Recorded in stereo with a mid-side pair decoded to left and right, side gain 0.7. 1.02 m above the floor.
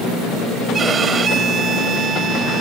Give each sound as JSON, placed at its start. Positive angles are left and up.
{"t": 0.7, "sound": "a violin", "azimuth_deg": -30}